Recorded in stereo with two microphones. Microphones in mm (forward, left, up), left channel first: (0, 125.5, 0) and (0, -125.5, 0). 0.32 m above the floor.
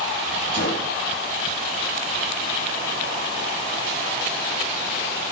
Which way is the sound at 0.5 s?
80° left.